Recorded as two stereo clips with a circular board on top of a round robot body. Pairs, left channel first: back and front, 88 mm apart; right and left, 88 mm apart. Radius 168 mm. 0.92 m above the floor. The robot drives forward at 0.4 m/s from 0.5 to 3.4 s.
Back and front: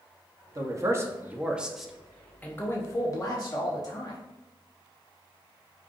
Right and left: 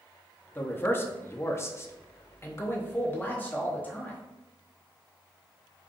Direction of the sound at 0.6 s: 30° right.